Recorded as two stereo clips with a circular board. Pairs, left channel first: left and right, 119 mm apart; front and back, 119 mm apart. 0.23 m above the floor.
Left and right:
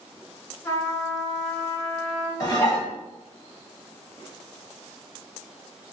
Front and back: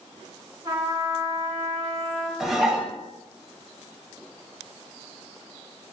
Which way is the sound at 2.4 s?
95° left.